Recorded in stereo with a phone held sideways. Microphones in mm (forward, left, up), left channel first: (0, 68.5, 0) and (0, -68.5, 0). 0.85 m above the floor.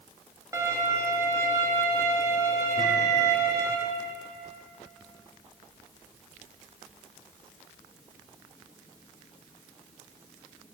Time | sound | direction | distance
0.5 | a violin | 20° right (ahead or behind) | 1.4 m
2.8 | a microwave | 60° right (ahead or behind) | 1.2 m